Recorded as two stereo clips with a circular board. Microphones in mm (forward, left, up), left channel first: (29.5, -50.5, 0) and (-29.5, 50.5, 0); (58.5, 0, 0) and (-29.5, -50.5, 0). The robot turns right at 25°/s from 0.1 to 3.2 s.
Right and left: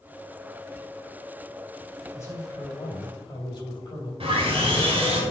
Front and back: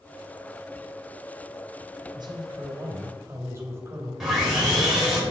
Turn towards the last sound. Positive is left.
turn(degrees=125)